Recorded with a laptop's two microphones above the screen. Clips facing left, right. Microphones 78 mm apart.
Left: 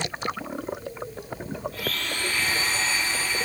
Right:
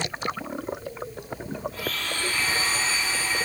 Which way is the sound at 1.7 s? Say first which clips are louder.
Even; 35° right (ahead or behind).